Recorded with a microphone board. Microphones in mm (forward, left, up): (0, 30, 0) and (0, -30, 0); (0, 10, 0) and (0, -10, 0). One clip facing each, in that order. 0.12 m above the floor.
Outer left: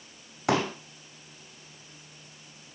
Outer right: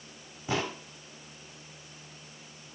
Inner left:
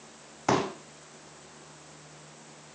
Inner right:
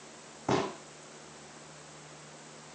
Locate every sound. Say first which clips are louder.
0.5 s a pop: outer left 6 dB, inner left 4 dB; 80° left, 3.5 m